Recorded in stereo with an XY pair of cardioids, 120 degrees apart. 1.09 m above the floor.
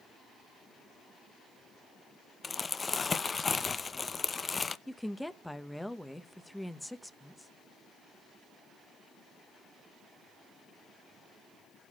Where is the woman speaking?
5° left, 0.8 m.